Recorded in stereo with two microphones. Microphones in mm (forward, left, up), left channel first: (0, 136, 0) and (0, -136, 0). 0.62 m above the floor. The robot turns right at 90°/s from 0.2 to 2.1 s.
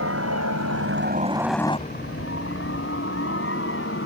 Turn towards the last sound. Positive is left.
turn(degrees=50)  # may be behind; listen again after turning